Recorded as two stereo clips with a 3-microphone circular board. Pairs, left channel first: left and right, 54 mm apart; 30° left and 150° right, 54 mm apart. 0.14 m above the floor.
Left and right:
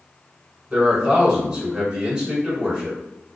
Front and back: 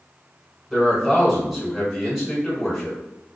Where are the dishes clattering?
I don't hear dishes clattering.